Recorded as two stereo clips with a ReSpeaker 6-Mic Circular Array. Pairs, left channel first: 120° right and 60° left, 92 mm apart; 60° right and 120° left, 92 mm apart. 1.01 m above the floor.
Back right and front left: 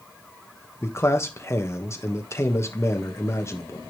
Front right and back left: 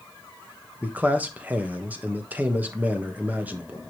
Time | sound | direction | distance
0.8 | a man speaking | 170° right | 1.1 m